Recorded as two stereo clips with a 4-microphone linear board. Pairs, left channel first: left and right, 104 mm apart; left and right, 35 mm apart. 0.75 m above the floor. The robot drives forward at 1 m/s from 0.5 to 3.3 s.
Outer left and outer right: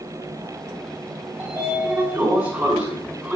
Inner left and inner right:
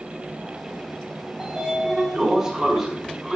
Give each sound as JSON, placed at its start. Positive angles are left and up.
{"t": 1.4, "sound": "a sliding door", "side_deg": -20, "distance_m": 1.9}